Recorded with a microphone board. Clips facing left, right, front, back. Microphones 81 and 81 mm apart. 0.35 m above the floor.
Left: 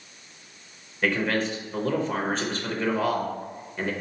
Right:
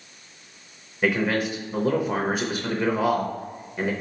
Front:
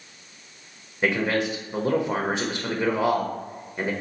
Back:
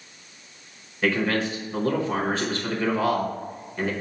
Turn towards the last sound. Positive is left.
turn(degrees=-30)